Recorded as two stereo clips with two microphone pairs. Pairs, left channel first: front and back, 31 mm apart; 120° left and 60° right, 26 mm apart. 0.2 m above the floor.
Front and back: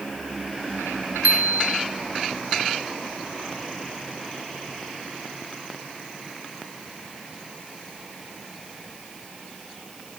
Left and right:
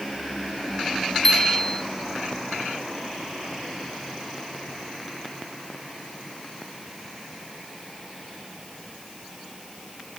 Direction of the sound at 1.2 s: 165° right.